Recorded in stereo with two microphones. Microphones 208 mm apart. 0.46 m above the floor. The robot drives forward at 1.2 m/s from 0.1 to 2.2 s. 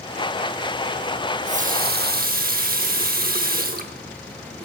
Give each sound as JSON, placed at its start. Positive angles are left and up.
{"t": 1.3, "sound": "a running tap", "side_deg": -30, "distance_m": 1.1}